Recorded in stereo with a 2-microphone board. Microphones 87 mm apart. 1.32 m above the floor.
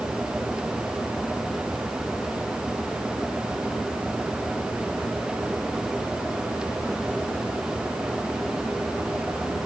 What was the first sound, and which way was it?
Only background noise.